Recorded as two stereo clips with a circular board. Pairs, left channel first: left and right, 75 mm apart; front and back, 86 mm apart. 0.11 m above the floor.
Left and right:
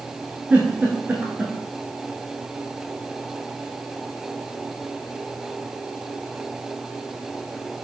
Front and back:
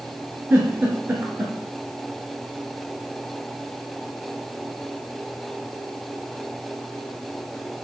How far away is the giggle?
About 1.2 m.